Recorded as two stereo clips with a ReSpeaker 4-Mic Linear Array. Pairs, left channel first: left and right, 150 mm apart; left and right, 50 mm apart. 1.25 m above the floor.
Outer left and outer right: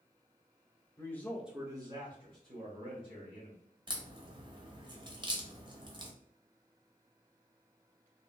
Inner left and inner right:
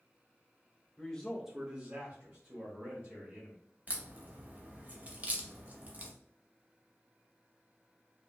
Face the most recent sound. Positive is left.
turn(degrees=-30)  # may be behind; listen again after turning